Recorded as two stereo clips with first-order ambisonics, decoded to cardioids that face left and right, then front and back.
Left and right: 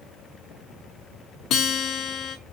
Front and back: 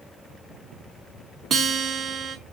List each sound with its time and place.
1.5 s a guitar: 120° left, 1.0 m